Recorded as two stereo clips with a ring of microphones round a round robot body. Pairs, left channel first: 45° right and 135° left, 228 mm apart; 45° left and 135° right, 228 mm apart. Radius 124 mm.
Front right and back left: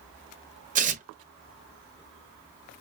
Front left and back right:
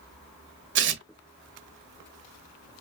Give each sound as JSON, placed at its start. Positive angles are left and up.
{"t": 0.8, "sound": "tearing paper", "azimuth_deg": -170, "distance_m": 0.9}